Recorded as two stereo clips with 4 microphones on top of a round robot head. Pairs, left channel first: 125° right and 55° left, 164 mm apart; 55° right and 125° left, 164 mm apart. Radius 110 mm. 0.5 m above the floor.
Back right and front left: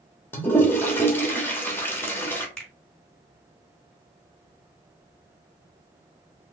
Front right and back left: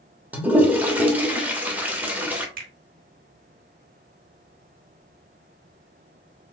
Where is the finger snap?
150° left, 2.5 m.